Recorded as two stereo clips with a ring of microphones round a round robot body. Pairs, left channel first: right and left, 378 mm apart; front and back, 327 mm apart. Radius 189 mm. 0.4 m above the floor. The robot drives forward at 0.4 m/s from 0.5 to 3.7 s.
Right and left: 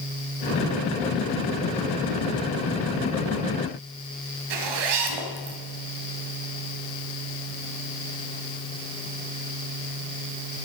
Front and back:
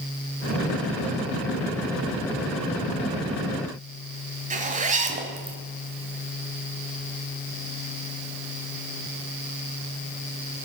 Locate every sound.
4.5 s a zipper: 110° left, 1.6 m